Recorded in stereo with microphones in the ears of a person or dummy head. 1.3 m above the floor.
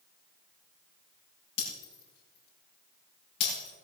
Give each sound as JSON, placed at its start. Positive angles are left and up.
{"t": 1.6, "sound": "breaking glass", "side_deg": 70, "distance_m": 8.5}